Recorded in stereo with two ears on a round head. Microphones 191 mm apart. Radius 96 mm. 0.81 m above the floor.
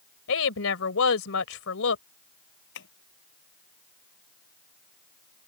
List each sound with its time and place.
0.3 s a woman speaking: 65° left (ahead or behind)
2.8 s tapping: 55° left (ahead or behind)